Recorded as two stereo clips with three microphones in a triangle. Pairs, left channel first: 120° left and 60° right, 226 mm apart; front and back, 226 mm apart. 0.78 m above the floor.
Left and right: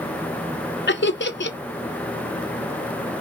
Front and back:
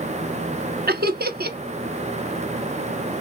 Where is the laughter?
145° left, 0.8 m.